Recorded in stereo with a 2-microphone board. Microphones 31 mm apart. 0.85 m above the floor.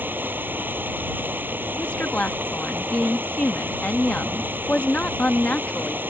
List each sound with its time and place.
0.0 s running water: 85° right
1.8 s a woman speaking: 45° left (ahead or behind)